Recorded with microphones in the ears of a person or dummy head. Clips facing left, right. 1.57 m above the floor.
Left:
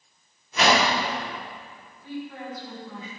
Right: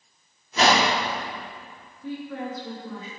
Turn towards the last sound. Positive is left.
turn(degrees=-75)  # may be behind; listen again after turning